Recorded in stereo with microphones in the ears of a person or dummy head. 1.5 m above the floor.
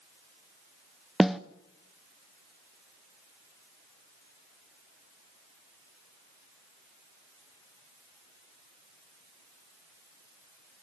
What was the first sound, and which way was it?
A snare drum, 5° right (ahead or behind).